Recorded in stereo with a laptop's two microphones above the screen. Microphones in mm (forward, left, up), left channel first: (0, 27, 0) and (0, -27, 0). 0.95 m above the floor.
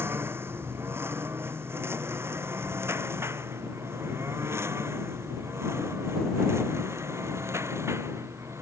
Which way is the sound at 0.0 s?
45° right (ahead or behind).